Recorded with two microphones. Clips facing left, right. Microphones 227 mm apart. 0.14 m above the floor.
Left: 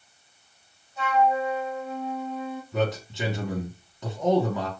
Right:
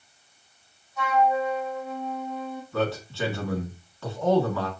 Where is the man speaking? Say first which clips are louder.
Even; 20° left (ahead or behind), 1.4 m.